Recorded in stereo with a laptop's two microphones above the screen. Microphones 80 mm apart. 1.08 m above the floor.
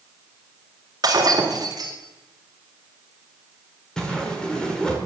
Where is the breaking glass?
50° right (ahead or behind), 2 m.